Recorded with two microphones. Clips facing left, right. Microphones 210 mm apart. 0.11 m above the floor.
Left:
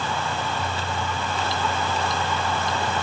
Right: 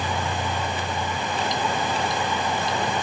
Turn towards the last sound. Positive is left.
No sound to turn to.